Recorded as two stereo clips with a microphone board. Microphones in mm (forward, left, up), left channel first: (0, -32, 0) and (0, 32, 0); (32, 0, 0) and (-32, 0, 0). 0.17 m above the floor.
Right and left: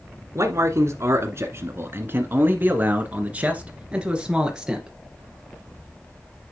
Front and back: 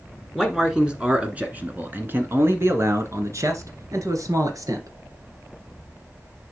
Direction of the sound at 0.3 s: 95° left.